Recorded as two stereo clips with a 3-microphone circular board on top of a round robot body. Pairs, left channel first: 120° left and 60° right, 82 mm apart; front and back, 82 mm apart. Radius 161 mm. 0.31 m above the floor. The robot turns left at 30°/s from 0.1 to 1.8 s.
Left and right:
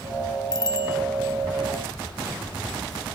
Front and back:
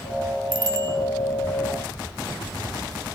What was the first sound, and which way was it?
A bicycle bell, 160° left.